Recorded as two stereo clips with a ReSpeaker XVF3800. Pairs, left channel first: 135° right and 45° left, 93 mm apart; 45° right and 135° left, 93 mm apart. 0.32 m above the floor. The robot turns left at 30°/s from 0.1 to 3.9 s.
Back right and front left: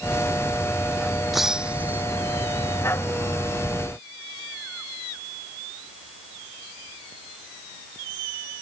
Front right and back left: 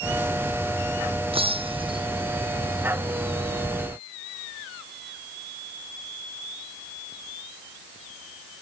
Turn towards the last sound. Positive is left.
turn(degrees=55)